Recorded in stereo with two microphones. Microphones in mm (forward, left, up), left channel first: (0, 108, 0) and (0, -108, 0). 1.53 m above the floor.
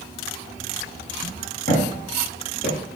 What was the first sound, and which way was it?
Footsteps, 50° left (ahead or behind).